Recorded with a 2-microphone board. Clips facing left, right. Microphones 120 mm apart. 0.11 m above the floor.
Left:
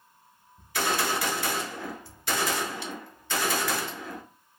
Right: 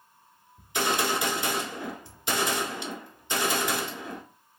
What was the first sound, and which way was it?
A gunshot, 20° right (ahead or behind).